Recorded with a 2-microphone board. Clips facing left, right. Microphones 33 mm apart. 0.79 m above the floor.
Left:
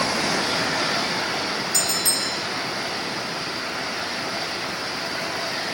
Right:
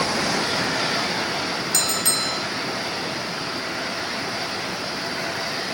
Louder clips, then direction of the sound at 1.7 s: Right 1 dB; 65° right (ahead or behind).